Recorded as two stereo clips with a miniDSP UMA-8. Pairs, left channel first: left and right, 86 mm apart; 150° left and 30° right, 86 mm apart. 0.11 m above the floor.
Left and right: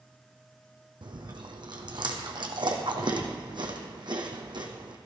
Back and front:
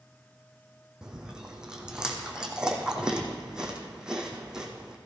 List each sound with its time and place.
1.0 s chewing: 110° right, 1.8 m